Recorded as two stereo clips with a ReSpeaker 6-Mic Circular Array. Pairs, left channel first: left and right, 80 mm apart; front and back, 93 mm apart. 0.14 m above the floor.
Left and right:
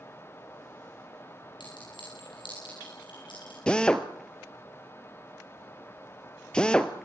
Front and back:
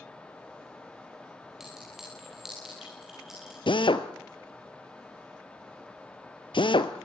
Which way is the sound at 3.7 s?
10° left.